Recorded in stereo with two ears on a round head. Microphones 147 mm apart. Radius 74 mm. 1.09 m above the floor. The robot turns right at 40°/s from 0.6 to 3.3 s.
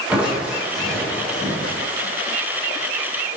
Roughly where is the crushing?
Ahead.